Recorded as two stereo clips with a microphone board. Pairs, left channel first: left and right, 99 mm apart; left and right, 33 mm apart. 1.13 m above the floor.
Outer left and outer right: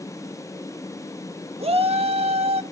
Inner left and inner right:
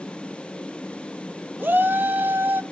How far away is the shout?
About 1.4 m.